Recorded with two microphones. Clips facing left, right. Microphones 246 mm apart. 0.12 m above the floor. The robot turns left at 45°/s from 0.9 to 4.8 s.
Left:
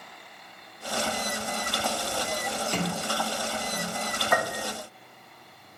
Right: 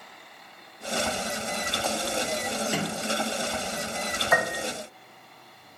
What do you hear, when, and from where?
2.7 s a sliding door: 10° right (ahead or behind), 1.5 m; by 4.0 s 15° left (ahead or behind), 1.5 m
4.3 s a piano: 15° right (ahead or behind), 1.8 m; by 4.7 s centre (ahead or behind), 1.8 m